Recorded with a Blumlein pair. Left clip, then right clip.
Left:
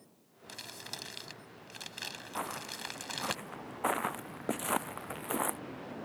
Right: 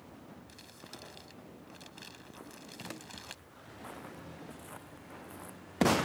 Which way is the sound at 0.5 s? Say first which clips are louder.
Left 11 dB; 30° left.